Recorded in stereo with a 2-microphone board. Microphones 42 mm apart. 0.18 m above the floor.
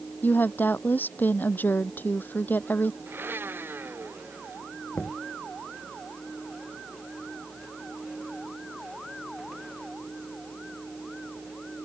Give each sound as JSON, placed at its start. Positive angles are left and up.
{"t": 0.2, "sound": "a woman speaking", "side_deg": 45}
{"t": 3.1, "sound": "a blender", "side_deg": -55}
{"t": 5.0, "sound": "knocking", "side_deg": 55}